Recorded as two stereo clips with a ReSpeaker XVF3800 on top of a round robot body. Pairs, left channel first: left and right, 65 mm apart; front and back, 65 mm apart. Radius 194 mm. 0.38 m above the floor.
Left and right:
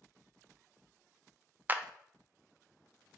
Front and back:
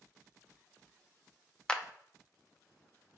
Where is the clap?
65° right, 0.7 m.